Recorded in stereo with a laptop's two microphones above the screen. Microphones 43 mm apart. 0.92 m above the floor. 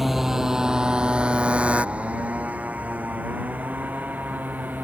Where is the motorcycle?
5° right (ahead or behind); by 4.8 s 45° right (ahead or behind).